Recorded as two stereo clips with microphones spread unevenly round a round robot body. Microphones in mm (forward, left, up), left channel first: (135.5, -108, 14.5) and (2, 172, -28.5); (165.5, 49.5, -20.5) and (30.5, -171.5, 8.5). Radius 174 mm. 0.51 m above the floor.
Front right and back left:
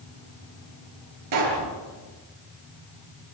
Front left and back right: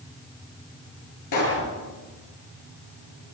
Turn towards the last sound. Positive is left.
turn(degrees=95)